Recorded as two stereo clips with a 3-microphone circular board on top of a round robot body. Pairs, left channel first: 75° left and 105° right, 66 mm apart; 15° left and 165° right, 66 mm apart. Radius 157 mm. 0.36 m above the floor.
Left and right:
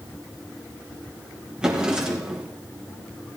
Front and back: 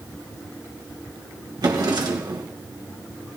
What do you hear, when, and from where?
1.6 s a drawer: 175° left, 2.5 m